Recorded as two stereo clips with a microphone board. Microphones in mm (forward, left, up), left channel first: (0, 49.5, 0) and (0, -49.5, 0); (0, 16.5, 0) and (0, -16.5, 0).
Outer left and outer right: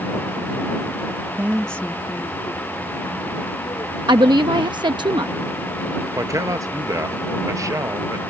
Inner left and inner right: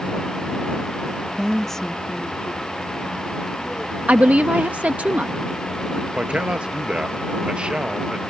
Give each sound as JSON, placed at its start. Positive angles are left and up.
{"t": 1.4, "sound": "a woman speaking", "side_deg": -25}
{"t": 4.1, "sound": "a woman speaking", "side_deg": -50}
{"t": 6.2, "sound": "a man speaking", "side_deg": -30}